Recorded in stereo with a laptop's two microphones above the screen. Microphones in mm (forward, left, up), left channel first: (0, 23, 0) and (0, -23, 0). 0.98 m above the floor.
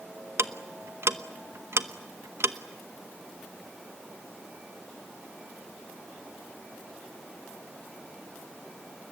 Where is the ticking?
65° right (ahead or behind), 0.9 m.